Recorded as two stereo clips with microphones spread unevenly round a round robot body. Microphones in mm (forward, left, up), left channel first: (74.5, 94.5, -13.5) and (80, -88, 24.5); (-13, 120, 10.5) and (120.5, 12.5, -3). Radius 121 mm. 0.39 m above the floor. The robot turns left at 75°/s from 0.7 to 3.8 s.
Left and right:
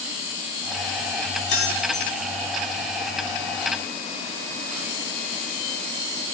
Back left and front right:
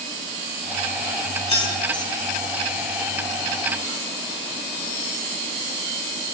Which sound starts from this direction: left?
Keys jangling, at 1.5 s.